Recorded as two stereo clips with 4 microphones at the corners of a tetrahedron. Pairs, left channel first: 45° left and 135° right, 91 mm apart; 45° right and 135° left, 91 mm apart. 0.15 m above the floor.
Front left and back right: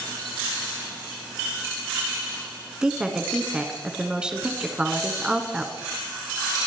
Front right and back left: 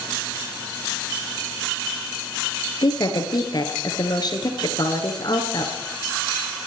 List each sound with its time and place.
2.8 s a woman speaking: 60° right, 1.7 m